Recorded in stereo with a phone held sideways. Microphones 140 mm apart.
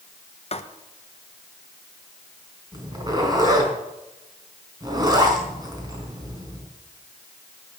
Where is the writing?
45° left (ahead or behind), 1.0 m.